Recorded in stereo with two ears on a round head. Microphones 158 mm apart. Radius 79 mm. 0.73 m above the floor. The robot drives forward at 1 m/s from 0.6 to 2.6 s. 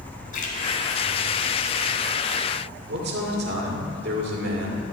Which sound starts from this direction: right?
A man speaking, at 2.9 s.